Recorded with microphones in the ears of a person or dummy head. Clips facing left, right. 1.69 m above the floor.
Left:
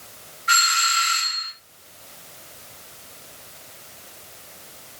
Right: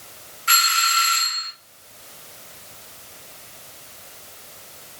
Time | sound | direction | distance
0.5 | a doorbell | 50° right (ahead or behind) | 2.5 m